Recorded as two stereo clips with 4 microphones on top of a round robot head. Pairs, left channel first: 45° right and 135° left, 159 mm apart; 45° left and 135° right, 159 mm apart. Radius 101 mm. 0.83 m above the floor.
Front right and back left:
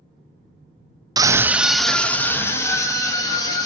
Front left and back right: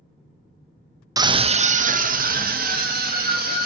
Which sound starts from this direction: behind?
A scream, at 1.2 s.